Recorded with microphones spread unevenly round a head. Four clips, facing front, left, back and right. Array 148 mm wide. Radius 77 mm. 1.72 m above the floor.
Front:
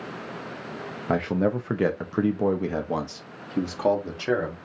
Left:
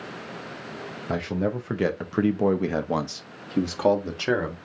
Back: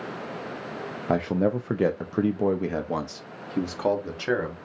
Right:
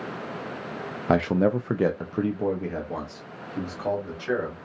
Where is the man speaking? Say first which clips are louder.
Right 5 dB, even; 45° right, 0.6 m; by 4.5 s 115° left, 1.5 m.